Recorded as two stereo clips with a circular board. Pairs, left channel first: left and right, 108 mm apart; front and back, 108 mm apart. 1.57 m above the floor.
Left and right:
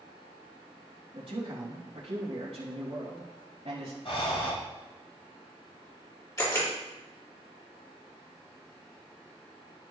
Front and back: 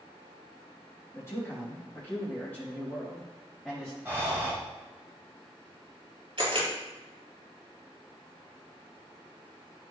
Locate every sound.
1.1 s a man speaking: 65° right, 3 m; by 4.0 s 95° right, 3 m
4.0 s breathing: 115° left, 4 m
6.4 s a camera shutter: 145° left, 4 m